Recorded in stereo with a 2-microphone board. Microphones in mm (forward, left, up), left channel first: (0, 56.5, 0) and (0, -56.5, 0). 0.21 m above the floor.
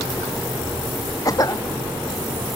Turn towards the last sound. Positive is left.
turn(degrees=30)  # may be behind; listen again after turning